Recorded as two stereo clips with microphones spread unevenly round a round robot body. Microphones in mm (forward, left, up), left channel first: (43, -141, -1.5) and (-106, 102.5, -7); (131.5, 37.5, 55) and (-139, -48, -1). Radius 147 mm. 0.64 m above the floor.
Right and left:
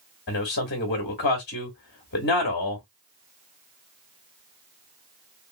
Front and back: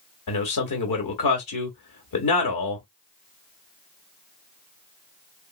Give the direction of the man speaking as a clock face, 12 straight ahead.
12 o'clock.